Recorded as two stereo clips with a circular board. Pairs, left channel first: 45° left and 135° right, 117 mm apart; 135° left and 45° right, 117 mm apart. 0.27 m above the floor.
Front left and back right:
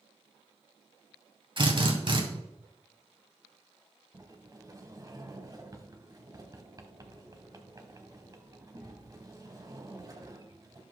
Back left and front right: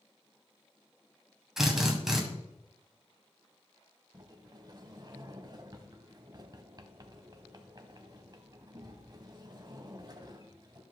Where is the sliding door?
85° right, 1.0 m.